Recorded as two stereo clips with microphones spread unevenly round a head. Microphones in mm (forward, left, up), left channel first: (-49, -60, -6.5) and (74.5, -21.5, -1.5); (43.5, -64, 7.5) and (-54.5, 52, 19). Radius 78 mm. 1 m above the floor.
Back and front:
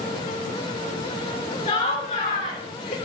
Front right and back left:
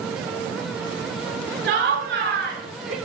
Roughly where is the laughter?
Behind left.